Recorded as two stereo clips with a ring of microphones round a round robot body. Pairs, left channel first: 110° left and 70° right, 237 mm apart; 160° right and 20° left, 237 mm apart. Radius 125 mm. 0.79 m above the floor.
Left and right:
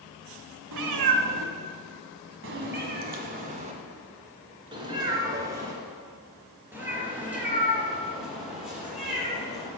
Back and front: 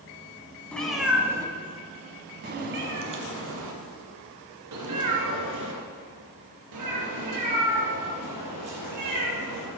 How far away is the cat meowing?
About 1.2 m.